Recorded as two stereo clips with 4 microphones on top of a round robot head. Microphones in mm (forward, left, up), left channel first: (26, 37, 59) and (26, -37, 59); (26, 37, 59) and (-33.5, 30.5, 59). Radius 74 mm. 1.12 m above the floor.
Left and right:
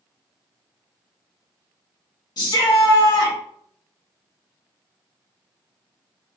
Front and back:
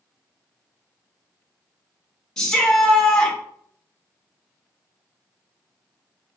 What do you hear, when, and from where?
2.4 s a shout: 85° left, 1.4 m